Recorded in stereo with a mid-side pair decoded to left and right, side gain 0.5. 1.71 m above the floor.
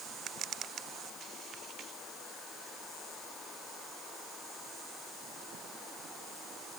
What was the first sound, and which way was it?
Only background noise.